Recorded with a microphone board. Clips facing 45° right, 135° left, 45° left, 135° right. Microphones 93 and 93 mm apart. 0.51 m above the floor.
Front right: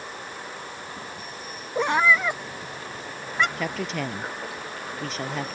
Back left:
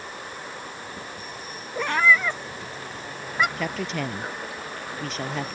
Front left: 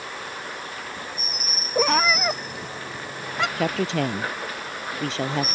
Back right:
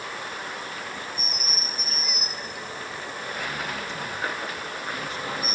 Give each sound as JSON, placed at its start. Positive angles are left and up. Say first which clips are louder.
{"t": 1.8, "sound": "a cat meowing", "louder": "even, front left 15 dB", "azimuth_deg": 25}
{"t": 3.6, "sound": "a woman speaking", "louder": "even, front left 8 dB", "azimuth_deg": 45}